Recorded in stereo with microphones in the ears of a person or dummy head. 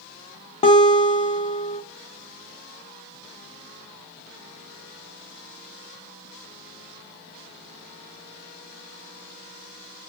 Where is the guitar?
25° left (ahead or behind), 0.8 m.